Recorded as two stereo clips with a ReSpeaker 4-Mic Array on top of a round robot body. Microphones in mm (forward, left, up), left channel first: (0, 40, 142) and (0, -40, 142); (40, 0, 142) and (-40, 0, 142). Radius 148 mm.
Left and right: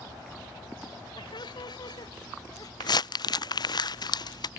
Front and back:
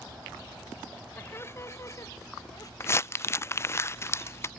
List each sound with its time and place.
1.2 s laughter: 65° left; by 2.7 s 50° left
2.8 s crumpling: 60° left